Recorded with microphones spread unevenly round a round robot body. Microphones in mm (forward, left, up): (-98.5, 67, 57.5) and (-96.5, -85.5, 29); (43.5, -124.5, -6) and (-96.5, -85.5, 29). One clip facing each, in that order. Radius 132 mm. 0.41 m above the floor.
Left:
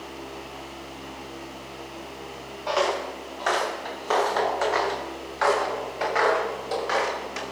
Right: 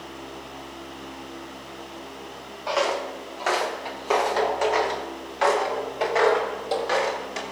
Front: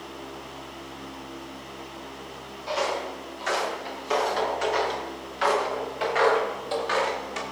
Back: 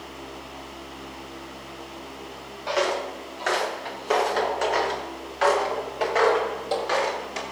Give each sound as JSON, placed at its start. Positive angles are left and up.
{"t": 2.7, "sound": "footsteps", "azimuth_deg": 180, "distance_m": 4.5}